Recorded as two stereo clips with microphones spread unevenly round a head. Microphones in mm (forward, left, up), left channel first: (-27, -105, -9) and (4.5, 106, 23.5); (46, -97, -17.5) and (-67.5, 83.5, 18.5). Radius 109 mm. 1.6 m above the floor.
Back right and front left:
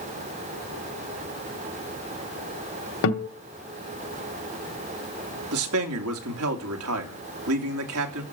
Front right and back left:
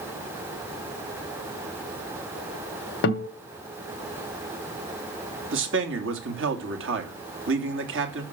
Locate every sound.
3.0 s a guitar: 85° right, 2 m
5.5 s a man speaking: 90° left, 2.5 m